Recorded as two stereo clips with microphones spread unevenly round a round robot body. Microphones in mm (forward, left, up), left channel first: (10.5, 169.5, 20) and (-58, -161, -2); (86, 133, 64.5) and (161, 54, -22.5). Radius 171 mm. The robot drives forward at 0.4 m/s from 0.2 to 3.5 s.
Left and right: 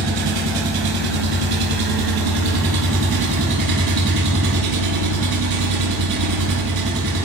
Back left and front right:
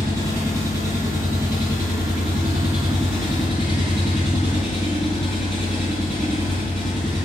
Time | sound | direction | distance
0.0 | an engine running | 110° right | 2.5 m